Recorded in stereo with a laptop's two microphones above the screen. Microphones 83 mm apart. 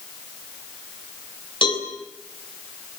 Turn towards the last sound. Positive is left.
turn(degrees=80)